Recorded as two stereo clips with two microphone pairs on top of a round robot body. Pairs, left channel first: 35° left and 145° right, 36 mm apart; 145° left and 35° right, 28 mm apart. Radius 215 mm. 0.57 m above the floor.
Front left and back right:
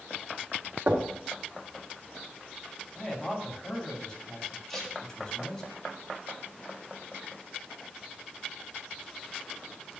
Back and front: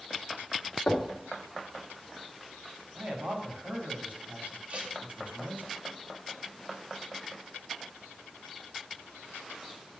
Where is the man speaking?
40° right, 2.5 m.